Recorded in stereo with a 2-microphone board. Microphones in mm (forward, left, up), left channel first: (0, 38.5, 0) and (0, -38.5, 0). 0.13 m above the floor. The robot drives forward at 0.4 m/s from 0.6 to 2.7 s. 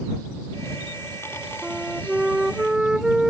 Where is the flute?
10° right (ahead or behind).